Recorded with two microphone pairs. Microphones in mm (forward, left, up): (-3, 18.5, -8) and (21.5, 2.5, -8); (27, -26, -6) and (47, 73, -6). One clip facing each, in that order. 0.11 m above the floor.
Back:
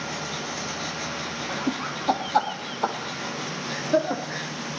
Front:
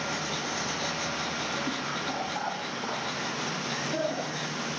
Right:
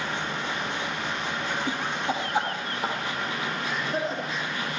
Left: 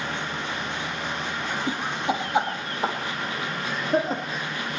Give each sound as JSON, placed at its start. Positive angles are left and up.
{"t": 1.5, "sound": "laughter", "azimuth_deg": 160, "distance_m": 2.5}